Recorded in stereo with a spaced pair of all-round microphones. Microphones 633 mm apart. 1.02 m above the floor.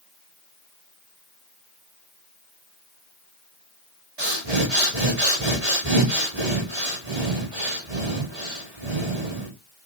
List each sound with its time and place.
4.2 s breathing: 75° right (ahead or behind), 2.5 m